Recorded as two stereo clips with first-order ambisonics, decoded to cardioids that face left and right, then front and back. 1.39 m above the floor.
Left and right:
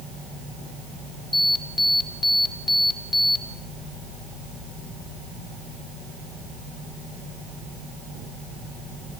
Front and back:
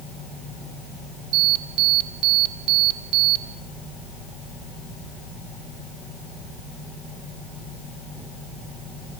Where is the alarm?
170° left, 2 m.